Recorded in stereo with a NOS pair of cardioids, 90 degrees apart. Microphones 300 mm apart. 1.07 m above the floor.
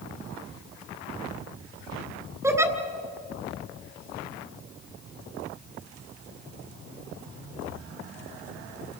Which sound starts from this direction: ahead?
A giggle, at 2.4 s.